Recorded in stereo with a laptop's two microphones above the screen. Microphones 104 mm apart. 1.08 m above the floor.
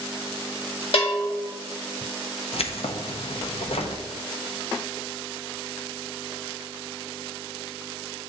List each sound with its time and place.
0.9 s a bell: 65° left (ahead or behind), 1.4 m
2.5 s keys jangling: 70° left (ahead or behind), 0.6 m